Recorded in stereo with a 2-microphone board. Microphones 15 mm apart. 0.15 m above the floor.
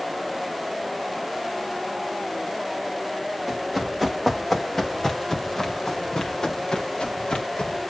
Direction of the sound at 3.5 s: Centre (ahead or behind).